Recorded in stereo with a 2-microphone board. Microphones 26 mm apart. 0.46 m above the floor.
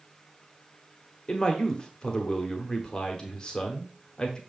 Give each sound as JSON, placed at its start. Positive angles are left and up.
{"t": 1.3, "sound": "a man speaking", "side_deg": 35, "distance_m": 1.3}